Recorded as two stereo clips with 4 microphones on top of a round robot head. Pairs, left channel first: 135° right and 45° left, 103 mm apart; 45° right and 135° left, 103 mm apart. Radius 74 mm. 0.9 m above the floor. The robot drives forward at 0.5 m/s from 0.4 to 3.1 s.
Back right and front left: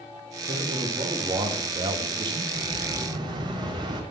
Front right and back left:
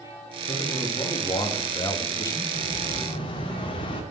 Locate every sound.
0.5 s a man speaking: 5° left, 2 m; by 2.4 s 10° left, 1.3 m
2.5 s an explosion: 5° right, 2.5 m